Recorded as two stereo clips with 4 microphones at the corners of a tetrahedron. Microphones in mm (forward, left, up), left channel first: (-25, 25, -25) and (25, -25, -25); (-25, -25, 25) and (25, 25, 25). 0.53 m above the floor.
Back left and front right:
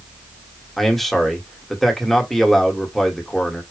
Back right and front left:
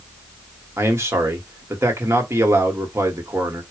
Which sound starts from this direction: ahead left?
A man speaking, at 0.8 s.